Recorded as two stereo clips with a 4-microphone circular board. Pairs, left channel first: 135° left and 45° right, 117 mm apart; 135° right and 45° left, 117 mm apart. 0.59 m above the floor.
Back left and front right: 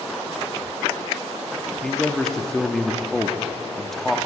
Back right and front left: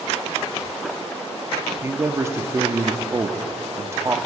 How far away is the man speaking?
About 0.7 m.